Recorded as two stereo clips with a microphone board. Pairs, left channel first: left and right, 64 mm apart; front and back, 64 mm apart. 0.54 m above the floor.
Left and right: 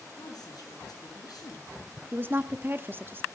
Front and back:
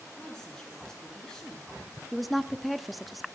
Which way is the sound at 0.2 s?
80° left.